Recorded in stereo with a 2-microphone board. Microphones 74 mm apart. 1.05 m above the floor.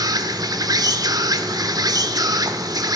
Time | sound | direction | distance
0.0 | an insect | 60° right (ahead or behind) | 1.0 m